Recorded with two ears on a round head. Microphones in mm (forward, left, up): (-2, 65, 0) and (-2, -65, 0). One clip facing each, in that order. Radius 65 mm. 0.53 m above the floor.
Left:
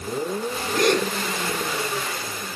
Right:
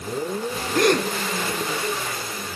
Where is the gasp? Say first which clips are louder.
Right 1 dB; 45° right (ahead or behind), 2 m.